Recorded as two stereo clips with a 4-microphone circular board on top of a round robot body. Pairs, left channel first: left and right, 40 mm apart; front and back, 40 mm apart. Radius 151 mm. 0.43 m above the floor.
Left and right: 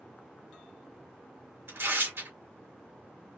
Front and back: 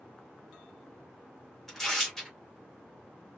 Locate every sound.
1.7 s tearing paper: 80° right, 2.5 m